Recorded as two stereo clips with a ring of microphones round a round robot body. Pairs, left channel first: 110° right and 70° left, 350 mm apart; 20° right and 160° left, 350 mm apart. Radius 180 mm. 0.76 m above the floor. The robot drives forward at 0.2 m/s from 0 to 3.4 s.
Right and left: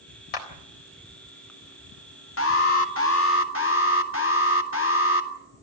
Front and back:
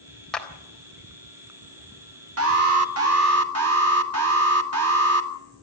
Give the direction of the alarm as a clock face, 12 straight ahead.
5 o'clock.